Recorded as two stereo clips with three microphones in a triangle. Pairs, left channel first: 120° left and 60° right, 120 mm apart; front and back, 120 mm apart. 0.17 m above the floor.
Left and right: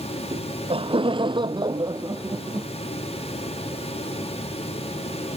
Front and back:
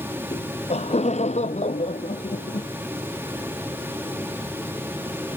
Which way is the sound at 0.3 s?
25° right.